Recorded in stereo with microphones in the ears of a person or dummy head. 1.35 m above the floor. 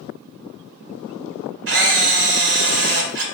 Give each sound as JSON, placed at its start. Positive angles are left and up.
{"t": 1.7, "sound": "a camera shutter", "side_deg": -55, "distance_m": 0.7}